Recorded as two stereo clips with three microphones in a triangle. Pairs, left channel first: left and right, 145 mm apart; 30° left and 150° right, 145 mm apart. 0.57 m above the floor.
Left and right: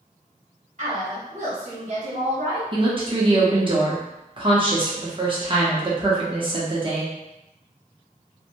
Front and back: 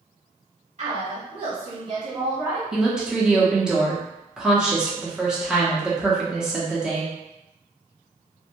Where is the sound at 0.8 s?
115° right, 1.8 m; by 2.6 s 75° right, 0.9 m.